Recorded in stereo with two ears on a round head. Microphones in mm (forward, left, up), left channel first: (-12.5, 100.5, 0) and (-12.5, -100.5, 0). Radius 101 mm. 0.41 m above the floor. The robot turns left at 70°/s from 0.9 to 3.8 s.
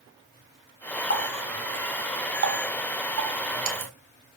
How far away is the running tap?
About 2 m.